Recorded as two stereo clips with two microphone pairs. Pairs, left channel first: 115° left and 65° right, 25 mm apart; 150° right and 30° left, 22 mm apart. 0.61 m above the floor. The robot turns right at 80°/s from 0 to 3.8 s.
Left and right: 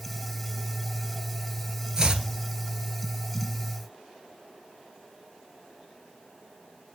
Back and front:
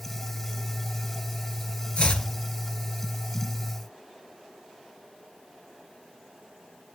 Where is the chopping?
135° right, 1.5 m; by 2.3 s 110° right, 1.5 m.